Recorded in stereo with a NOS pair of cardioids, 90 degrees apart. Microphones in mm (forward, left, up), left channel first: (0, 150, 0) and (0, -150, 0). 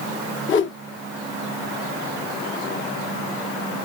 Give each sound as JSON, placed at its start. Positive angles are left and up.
{"t": 0.5, "sound": "a whoosh", "azimuth_deg": 40, "distance_m": 0.9}